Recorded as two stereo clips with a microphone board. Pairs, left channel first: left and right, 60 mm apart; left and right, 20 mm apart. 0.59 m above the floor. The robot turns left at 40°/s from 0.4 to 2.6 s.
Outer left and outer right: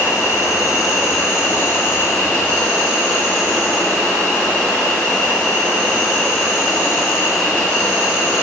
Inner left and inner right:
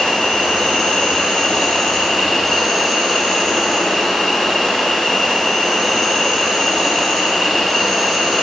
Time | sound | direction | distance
0.0 | an insect | 110° left | 5 m